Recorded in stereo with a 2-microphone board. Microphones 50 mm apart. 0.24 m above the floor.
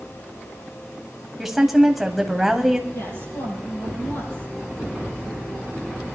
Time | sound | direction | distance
1.4 | a woman speaking | 5° right (ahead or behind) | 1.4 m
2.9 | a woman speaking | 80° left | 8 m